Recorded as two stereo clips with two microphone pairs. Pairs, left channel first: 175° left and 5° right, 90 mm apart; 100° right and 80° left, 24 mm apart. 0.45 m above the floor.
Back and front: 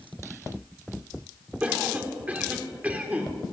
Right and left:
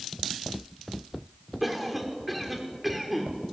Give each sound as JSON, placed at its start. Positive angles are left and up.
{"t": 1.6, "sound": "a cough", "azimuth_deg": -5, "distance_m": 1.4}